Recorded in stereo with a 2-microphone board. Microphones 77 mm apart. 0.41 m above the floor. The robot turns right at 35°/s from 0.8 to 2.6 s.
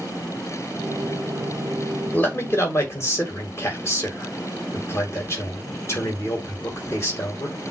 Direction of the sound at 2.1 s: 30° left (ahead or behind).